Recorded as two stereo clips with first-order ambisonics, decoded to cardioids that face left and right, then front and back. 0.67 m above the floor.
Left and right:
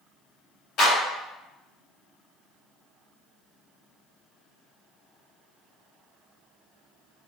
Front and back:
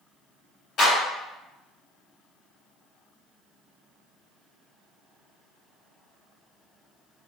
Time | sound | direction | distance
0.8 | a clap | 50° left | 1.7 m